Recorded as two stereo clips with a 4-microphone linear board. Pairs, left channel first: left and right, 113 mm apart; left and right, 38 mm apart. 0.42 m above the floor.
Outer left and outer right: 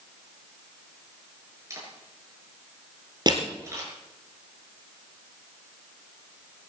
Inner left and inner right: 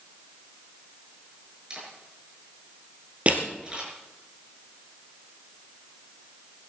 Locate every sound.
1.7 s a camera shutter: 25° right (ahead or behind), 7 m
3.3 s crushing: 40° right (ahead or behind), 3 m